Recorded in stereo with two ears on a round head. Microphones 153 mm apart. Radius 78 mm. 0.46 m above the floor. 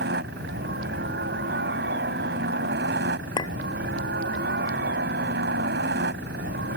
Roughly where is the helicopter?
Right.